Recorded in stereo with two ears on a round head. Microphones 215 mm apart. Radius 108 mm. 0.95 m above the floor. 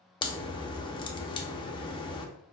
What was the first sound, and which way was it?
A crack, 20° left (ahead or behind).